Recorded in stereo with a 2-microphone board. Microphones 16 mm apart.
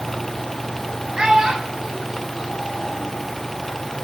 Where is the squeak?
I don't hear a squeak.